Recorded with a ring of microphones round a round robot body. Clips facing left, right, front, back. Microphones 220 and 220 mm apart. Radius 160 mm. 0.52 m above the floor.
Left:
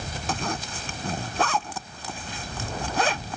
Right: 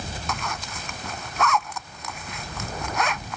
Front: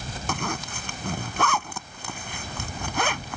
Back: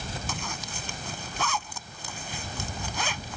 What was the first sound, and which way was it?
A zipper, 30° left.